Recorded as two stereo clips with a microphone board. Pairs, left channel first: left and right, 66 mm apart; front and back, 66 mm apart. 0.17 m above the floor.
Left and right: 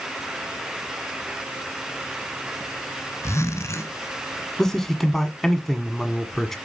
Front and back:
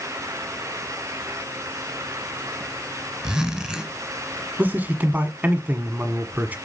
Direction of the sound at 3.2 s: 100° left.